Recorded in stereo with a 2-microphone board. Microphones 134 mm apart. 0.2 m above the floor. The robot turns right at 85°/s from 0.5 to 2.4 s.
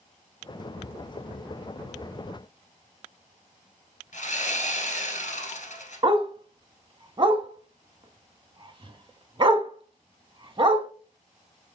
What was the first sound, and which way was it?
Sawing, 70° left (ahead or behind).